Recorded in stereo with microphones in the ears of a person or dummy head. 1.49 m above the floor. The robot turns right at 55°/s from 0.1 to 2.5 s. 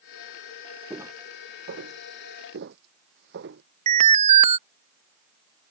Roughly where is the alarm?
Right.